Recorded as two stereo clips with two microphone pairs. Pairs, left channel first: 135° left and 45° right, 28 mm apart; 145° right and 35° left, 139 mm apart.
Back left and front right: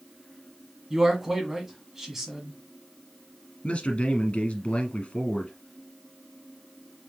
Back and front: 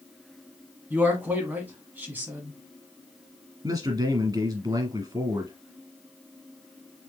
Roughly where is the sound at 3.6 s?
Left.